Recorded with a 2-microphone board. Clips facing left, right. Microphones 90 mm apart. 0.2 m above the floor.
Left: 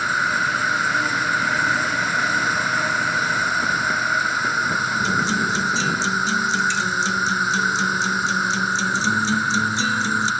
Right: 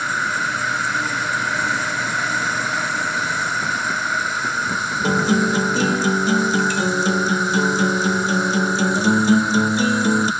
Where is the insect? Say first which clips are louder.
Left 1 dB; 5° left (ahead or behind).